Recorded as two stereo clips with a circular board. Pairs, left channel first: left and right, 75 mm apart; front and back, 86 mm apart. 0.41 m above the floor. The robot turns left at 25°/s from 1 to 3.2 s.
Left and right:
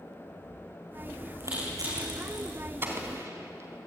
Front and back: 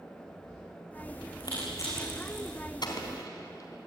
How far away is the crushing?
About 9.5 m.